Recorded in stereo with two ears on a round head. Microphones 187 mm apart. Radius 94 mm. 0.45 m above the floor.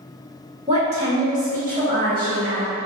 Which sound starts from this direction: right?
A woman speaking, at 0.7 s.